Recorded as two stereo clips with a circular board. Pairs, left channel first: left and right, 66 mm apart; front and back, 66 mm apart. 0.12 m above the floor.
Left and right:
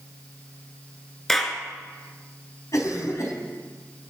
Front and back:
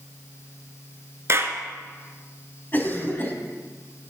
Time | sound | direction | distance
1.3 | a clap | 175° left | 1.6 m
2.7 | a cough | 55° left | 3.5 m